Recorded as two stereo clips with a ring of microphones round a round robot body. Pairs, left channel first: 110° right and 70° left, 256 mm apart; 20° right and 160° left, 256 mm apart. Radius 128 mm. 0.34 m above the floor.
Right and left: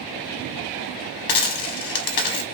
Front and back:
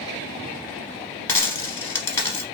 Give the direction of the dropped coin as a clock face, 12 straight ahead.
3 o'clock.